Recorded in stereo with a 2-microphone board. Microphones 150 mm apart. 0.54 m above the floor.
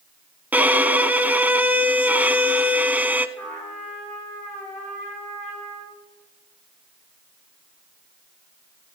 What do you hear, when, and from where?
0.5 s a violin: 10° right (ahead or behind), 0.6 m
3.4 s a trumpet: 5° left (ahead or behind), 7.5 m